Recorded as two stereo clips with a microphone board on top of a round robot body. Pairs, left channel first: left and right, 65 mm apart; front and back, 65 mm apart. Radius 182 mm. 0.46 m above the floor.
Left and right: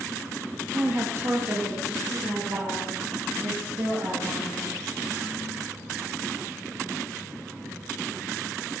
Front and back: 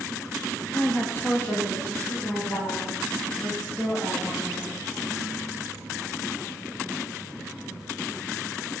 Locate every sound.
0.7 s a woman speaking: 50° right, 1.1 m; by 4.8 s 55° right, 4.5 m